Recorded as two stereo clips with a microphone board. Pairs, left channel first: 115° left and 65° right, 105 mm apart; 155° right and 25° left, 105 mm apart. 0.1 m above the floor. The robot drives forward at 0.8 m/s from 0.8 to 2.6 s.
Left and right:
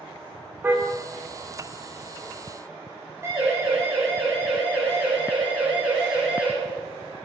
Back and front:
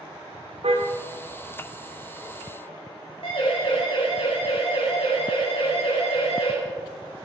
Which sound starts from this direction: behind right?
A siren, at 3.2 s.